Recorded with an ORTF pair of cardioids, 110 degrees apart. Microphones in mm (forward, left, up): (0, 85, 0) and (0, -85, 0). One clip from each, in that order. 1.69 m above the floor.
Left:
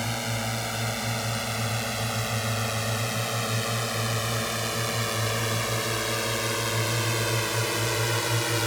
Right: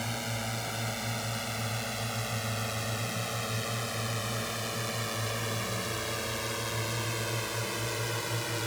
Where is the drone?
30° left; by 8.7 s 45° left.